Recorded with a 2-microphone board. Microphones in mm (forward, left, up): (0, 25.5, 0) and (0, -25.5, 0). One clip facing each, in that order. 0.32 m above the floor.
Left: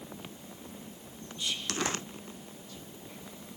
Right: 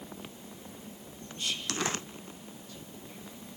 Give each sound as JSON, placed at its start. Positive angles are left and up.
{"t": 1.4, "sound": "whispering", "side_deg": -50, "distance_m": 3.0}